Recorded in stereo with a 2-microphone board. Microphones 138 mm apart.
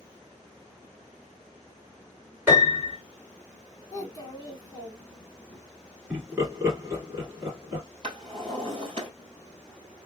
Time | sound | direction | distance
2.5 | a piano | 15° right (ahead or behind) | 2 m
3.9 | a child speaking | 30° left (ahead or behind) | 0.8 m
6.1 | laughter | 20° right (ahead or behind) | 1.7 m
8.0 | a drawer | 45° right (ahead or behind) | 1.8 m